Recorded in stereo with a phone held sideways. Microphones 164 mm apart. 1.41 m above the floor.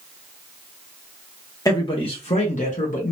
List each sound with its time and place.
1.6 s a man speaking: 20° left (ahead or behind), 0.9 m; by 3.1 s 60° left (ahead or behind), 1.3 m